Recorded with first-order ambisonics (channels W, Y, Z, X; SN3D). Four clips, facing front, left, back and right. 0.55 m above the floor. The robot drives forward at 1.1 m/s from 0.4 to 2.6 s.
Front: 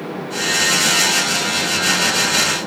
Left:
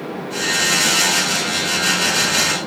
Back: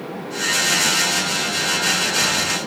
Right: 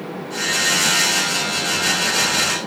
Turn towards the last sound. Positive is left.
No sound to turn to.